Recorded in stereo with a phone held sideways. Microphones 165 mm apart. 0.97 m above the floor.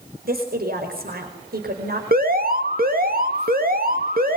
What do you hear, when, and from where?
0.2 s a woman speaking: 65° right (ahead or behind), 5 m
2.1 s an alarm: 60° right (ahead or behind), 2.0 m